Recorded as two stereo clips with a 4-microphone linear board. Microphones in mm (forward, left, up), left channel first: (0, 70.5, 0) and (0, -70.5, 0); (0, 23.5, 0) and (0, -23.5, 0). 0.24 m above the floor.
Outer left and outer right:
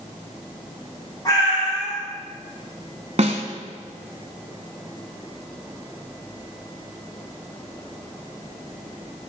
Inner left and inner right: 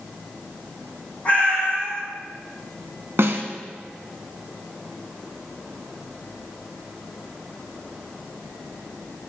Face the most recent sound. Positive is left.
turn(degrees=-55)  # may be behind; listen again after turning